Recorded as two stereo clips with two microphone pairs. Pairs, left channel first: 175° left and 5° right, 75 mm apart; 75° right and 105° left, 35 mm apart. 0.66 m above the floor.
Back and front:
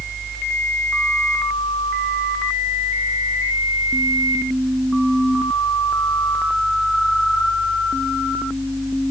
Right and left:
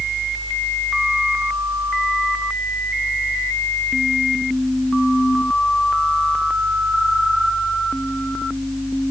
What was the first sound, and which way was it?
Only background noise.